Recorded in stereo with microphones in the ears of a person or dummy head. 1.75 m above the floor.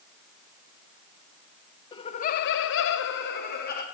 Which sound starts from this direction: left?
Laughter, at 1.9 s.